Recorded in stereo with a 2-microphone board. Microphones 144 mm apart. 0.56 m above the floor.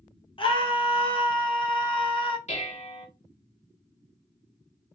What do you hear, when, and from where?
0.4 s a scream: 35° left (ahead or behind), 0.8 m
2.5 s dishes clattering: 55° left (ahead or behind), 1.4 m